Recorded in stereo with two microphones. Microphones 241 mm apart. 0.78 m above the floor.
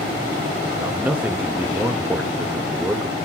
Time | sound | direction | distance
0.8 | a man speaking | 5° right (ahead or behind) | 0.7 m